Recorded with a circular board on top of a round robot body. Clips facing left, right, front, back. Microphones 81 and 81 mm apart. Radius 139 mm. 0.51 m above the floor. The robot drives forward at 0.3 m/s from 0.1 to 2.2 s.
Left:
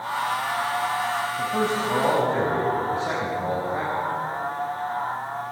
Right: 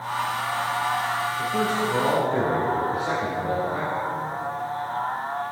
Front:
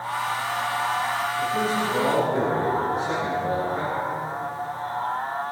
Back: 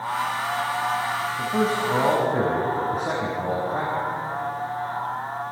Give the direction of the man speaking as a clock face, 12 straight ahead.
7 o'clock.